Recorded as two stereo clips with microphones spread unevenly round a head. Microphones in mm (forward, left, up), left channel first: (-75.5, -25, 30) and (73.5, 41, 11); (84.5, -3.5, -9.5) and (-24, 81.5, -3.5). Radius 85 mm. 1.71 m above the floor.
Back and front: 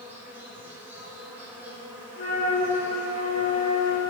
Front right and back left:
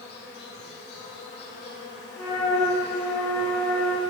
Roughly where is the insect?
Ahead right.